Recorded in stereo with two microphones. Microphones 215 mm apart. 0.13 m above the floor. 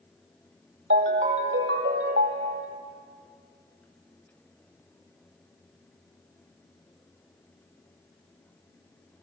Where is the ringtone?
65° right (ahead or behind), 2.0 m.